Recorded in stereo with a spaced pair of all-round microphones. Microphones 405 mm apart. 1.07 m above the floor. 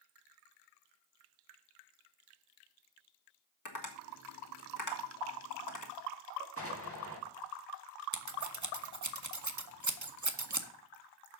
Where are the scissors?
45° right (ahead or behind), 0.8 m.